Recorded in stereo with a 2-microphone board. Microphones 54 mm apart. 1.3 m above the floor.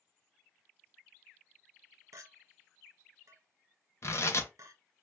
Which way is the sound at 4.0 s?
55° left (ahead or behind).